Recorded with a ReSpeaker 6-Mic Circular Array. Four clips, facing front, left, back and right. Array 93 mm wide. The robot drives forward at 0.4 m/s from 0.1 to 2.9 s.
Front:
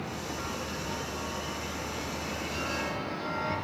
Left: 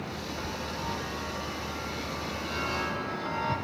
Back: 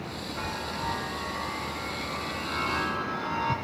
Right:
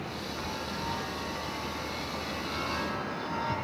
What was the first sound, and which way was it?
A chime, straight behind.